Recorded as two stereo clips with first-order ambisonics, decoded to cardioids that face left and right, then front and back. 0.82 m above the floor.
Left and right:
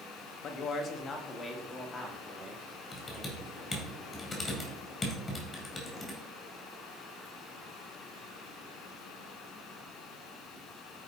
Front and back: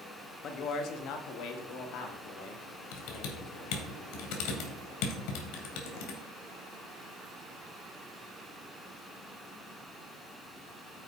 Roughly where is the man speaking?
Ahead left.